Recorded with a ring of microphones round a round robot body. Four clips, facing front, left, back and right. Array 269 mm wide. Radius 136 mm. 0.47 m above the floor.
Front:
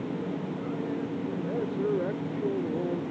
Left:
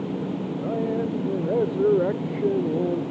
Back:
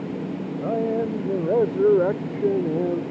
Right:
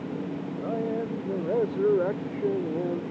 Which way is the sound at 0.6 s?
165° left.